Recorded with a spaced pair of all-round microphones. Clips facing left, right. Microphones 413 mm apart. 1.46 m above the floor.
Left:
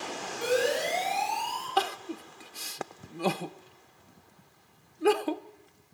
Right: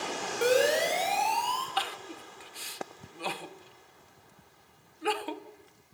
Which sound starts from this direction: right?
A siren, at 0.4 s.